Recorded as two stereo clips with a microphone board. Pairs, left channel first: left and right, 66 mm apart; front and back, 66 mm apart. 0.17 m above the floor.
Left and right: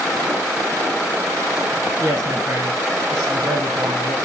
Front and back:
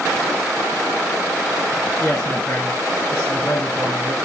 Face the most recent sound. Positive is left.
turn(degrees=-45)